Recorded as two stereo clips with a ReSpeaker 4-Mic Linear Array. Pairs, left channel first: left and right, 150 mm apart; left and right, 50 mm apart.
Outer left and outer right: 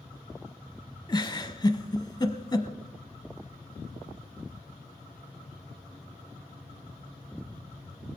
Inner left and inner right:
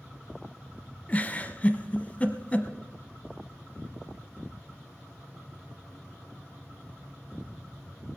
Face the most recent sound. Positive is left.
turn(degrees=25)  # may be behind; listen again after turning